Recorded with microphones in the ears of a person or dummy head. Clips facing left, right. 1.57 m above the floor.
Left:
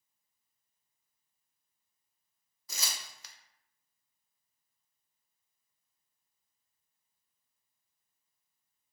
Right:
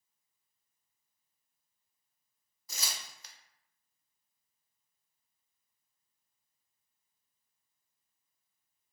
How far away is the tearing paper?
About 0.5 m.